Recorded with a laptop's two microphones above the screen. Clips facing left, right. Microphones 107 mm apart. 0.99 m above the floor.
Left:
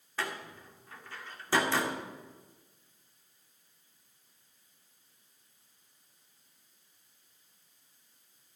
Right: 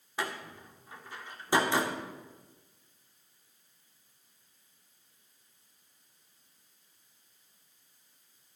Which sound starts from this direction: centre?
A door slam, at 0.2 s.